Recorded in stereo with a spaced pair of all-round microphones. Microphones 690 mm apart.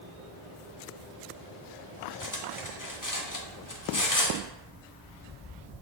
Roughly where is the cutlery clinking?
Left.